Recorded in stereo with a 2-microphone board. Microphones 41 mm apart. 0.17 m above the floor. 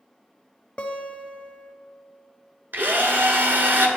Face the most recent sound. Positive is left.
turn(degrees=-60)  # may be behind; listen again after turning